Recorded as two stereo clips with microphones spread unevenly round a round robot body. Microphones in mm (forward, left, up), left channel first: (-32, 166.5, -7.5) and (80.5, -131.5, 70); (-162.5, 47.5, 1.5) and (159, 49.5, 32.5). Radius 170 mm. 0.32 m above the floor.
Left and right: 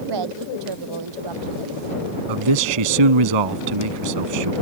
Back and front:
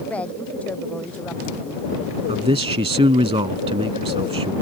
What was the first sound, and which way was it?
A woman speaking, 95° right.